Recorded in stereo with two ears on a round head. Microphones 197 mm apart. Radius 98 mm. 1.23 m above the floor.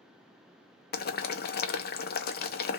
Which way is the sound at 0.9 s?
45° left (ahead or behind).